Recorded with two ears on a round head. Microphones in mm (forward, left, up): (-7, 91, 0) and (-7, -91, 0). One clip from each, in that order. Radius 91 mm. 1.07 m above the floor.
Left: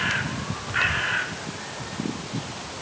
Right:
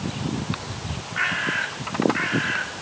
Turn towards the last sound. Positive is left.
No sound to turn to.